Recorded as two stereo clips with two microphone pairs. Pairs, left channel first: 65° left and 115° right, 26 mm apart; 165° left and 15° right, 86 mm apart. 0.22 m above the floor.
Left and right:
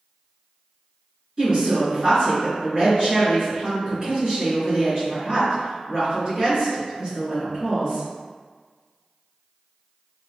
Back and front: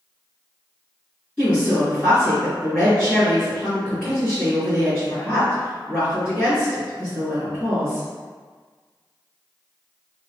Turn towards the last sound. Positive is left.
turn(degrees=-135)